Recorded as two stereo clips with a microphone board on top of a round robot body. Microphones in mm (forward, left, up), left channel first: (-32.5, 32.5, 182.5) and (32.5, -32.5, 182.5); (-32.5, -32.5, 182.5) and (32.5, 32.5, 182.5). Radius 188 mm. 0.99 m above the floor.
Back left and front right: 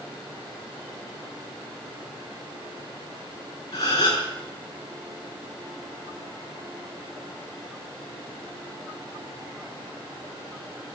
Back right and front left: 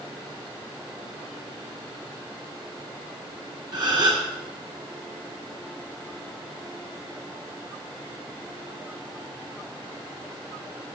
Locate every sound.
3.7 s a gasp: 85° left, 3.5 m